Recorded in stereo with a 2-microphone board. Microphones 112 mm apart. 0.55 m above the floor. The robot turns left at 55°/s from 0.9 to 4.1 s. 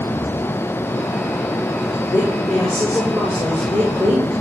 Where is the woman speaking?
40° left, 5.5 m; by 4.3 s 70° right, 5.5 m.